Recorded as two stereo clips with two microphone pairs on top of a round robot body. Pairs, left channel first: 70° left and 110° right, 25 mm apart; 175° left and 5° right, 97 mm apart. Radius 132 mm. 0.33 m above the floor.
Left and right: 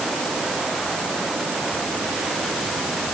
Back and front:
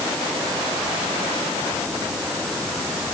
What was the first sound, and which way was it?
Only background noise.